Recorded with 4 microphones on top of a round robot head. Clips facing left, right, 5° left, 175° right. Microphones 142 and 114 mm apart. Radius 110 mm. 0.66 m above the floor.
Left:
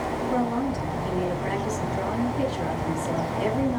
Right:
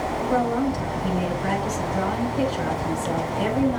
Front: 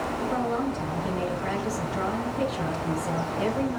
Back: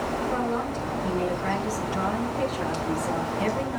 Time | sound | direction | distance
0.3 | a woman speaking | 70° right | 5 m